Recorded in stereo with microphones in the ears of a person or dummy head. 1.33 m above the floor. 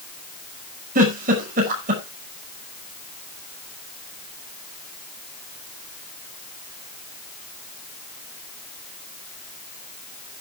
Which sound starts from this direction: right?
A giggle, at 0.9 s.